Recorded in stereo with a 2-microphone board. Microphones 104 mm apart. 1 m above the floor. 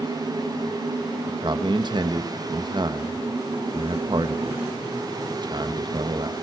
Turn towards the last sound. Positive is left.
turn(degrees=-45)  # may be behind; listen again after turning